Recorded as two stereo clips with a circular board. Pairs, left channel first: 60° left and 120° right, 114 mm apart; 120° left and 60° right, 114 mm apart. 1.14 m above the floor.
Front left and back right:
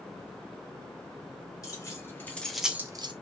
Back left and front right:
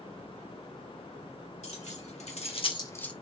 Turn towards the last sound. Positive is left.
turn(degrees=-160)